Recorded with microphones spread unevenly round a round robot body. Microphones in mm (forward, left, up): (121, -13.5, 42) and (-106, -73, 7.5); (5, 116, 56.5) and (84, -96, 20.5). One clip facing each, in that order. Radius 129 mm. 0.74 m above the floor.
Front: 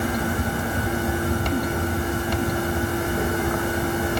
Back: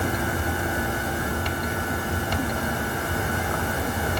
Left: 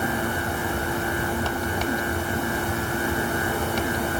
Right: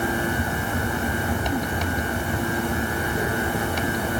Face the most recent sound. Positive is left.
No sound to turn to.